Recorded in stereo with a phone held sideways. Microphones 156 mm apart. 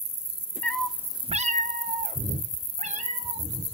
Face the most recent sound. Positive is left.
turn(degrees=-45)  # may be behind; listen again after turning